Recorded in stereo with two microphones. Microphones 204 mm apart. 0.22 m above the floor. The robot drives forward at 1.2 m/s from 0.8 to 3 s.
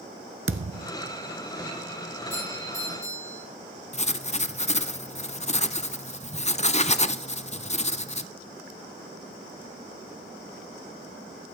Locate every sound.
0.5 s a thud: 80° right, 0.8 m; by 0.9 s 85° right, 0.8 m
2.3 s a doorbell: 70° left (ahead or behind), 9 m; by 3.5 s 65° left (ahead or behind), 9.5 m
3.9 s writing: 35° left (ahead or behind), 0.6 m